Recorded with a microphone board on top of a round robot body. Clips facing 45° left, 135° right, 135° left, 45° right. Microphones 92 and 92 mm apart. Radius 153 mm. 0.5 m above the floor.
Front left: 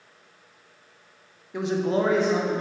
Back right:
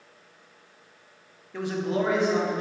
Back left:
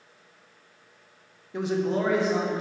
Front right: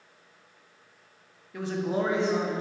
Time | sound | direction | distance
1.5 | a man speaking | 105° left | 0.7 m